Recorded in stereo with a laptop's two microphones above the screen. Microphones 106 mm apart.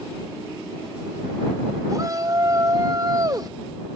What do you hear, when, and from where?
1.9 s a shout: 35° right (ahead or behind)